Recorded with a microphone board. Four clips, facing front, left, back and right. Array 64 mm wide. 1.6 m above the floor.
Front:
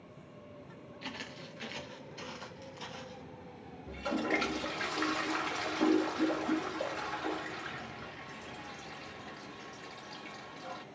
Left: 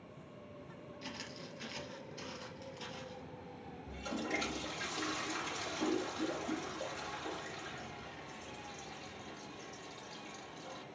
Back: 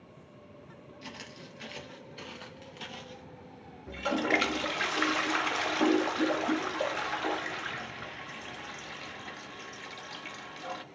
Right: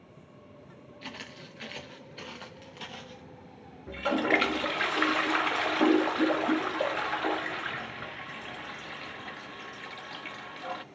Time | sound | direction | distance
1.0 | footsteps | 60° right | 1.9 m
3.9 | a toilet flushing | 110° right | 0.5 m